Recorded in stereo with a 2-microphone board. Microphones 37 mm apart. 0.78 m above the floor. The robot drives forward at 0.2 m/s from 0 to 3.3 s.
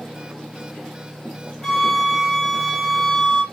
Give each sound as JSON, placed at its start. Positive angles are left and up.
{"t": 1.6, "sound": "a flute", "side_deg": 5, "distance_m": 1.1}